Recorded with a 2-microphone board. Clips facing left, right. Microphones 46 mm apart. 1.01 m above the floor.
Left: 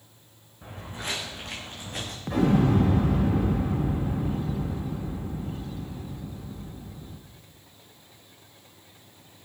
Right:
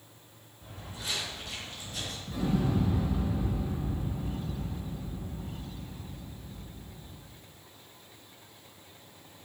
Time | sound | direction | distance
0.6 | footsteps | 55° left (ahead or behind) | 4 m
2.3 | an explosion | 70° left (ahead or behind) | 0.9 m